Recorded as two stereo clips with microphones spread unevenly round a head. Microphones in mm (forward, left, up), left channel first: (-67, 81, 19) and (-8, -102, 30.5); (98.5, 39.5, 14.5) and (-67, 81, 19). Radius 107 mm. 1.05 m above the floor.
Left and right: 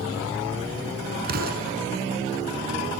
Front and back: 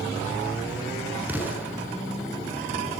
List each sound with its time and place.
1.2 s an explosion: 110° right, 6 m